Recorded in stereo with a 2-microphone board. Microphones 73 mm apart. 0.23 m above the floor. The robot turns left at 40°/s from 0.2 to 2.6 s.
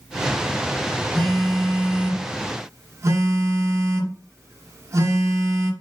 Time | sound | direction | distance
1.1 | a phone buzzing | 15° left | 2 m